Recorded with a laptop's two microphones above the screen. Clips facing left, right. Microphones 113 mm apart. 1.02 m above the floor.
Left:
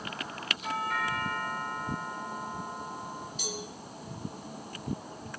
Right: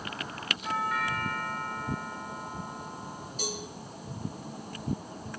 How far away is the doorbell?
About 8 m.